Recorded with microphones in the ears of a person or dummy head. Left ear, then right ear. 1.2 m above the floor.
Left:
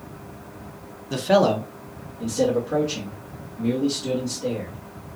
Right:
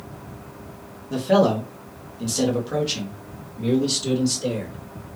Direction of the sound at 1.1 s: 30° left (ahead or behind).